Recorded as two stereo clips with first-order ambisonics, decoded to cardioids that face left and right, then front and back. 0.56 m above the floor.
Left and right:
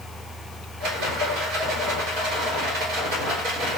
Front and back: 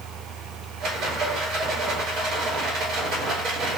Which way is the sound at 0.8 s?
130° right.